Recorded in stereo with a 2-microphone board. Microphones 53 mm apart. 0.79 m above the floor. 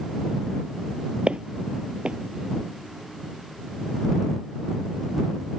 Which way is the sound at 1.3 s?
20° right (ahead or behind).